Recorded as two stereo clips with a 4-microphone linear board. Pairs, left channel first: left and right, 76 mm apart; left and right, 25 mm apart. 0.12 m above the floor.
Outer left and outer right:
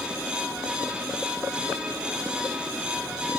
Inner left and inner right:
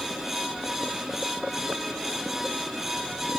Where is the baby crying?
No baby crying in this recording.